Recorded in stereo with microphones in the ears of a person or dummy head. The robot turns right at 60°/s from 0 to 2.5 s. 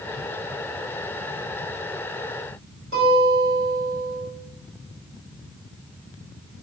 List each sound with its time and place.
2.9 s a guitar: 45° right (ahead or behind), 1.6 m